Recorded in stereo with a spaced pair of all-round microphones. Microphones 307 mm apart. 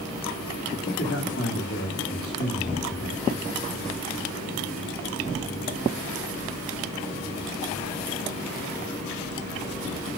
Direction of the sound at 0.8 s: 45° left (ahead or behind).